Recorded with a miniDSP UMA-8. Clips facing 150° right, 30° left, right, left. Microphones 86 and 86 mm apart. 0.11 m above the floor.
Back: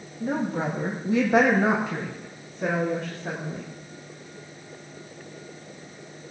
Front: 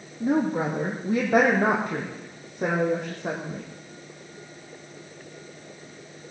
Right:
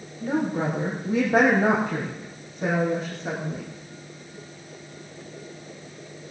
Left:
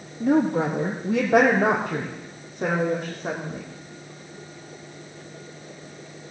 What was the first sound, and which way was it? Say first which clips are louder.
A woman speaking: front 3 dB, left 5 dB; 100° left.